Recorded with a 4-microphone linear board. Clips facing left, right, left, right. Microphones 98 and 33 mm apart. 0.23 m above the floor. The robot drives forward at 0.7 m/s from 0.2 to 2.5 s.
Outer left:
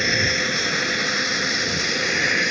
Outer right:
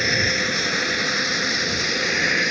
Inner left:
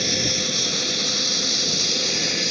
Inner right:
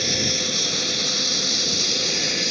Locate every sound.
0.0 s an aircraft: centre (ahead or behind)